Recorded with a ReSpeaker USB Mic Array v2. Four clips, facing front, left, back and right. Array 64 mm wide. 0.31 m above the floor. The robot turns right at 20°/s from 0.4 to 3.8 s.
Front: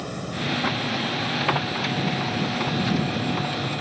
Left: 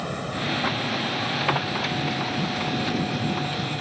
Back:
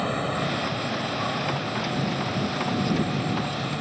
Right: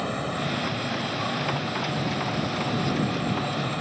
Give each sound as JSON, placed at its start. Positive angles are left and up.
{"t": 0.0, "sound": "an insect", "azimuth_deg": -170}